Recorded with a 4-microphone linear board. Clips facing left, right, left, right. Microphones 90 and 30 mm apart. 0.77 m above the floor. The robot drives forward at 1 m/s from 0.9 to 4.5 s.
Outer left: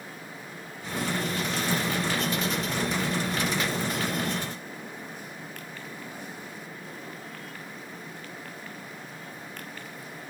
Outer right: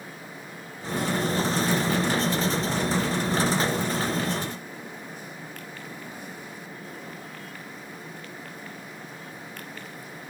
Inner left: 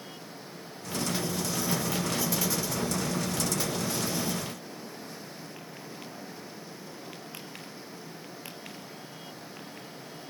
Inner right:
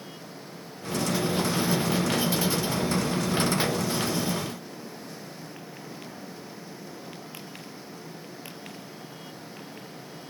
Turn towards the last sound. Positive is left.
No sound to turn to.